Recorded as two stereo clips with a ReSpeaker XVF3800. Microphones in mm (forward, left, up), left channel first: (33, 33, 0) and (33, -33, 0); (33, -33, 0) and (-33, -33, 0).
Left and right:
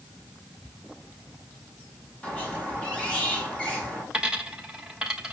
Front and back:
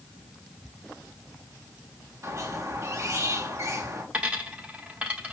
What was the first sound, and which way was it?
A squeak, 155° left.